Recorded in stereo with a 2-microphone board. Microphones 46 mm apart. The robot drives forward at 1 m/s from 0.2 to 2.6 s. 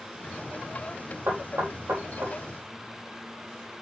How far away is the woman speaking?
No woman speaking in this recording.